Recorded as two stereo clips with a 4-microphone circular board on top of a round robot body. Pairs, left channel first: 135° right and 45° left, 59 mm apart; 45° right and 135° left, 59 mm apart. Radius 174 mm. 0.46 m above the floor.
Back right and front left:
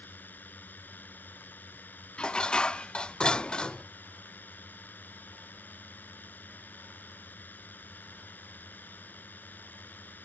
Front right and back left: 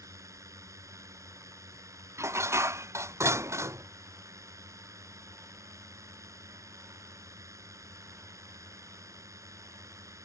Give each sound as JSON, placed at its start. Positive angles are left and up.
{"t": 0.0, "sound": "a drone", "azimuth_deg": 165}
{"t": 2.2, "sound": "dishes clattering", "azimuth_deg": 150}